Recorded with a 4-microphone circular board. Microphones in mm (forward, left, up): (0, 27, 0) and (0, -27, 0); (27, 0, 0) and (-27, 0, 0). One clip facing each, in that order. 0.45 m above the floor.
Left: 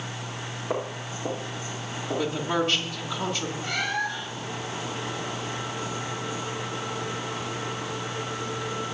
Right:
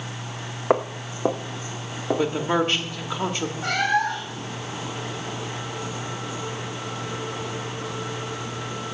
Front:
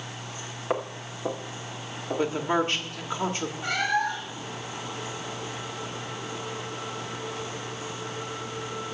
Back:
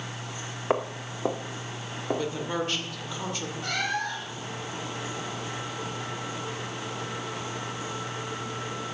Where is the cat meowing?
75° right, 2.5 m.